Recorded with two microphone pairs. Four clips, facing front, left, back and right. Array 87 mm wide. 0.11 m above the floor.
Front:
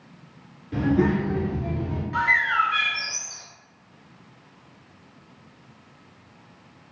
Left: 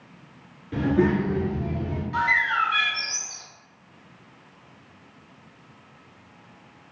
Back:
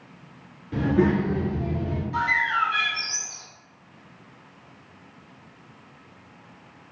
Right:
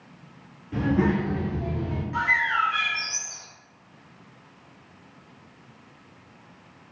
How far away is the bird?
About 0.7 m.